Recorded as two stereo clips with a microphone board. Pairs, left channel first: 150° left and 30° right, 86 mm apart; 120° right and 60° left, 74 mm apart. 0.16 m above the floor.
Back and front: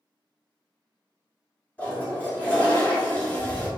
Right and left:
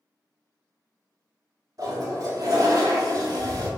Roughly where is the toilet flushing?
Left.